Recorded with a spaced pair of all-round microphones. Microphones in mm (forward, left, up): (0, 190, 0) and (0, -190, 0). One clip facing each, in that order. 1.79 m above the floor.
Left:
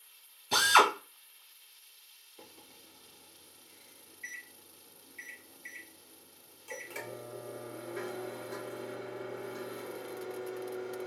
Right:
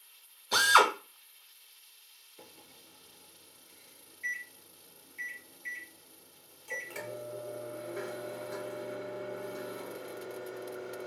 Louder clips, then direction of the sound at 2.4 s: Even; centre (ahead or behind).